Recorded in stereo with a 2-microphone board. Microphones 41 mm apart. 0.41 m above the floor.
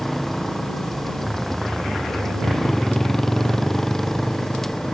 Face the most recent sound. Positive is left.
turn(degrees=10)  # may be behind; listen again after turning